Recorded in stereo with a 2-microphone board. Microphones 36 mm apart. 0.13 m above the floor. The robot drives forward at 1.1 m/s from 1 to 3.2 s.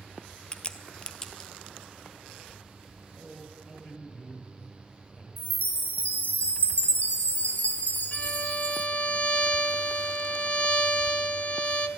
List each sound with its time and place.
0.5 s a crack: 20° left (ahead or behind), 0.6 m; by 1.5 s 10° left (ahead or behind), 1.1 m
3.2 s a man speaking: 15° left (ahead or behind), 3 m
5.4 s a chime: 45° left (ahead or behind), 0.8 m
8.1 s a violin: 35° left (ahead or behind), 0.6 m